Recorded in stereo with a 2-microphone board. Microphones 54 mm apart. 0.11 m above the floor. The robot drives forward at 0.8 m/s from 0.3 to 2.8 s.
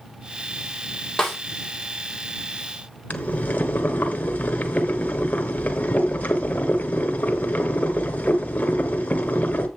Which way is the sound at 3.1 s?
30° left (ahead or behind).